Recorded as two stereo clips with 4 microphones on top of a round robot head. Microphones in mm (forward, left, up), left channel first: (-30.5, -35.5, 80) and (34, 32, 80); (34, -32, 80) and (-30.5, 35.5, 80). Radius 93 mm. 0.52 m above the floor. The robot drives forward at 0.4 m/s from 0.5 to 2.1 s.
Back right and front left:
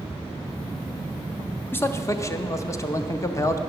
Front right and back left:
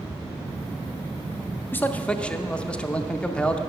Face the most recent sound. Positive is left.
turn(degrees=-115)